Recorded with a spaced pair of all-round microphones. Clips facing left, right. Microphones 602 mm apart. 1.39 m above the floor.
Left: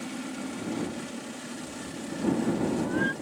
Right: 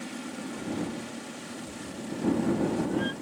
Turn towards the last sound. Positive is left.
turn(degrees=-5)  # may be behind; listen again after turning